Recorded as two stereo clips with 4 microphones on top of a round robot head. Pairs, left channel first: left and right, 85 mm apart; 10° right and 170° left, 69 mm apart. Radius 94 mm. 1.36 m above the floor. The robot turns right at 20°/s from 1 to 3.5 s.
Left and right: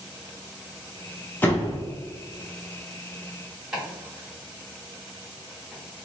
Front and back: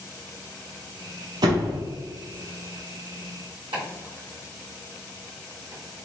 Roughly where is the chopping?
Behind.